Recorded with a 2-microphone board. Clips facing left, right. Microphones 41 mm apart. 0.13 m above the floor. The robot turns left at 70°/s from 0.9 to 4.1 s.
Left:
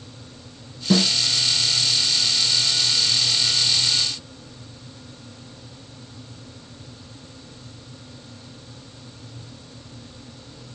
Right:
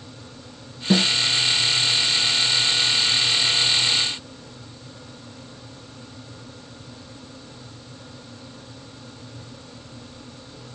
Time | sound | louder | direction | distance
0.9 | a snare drum | even | 10° right (ahead or behind) | 1.9 m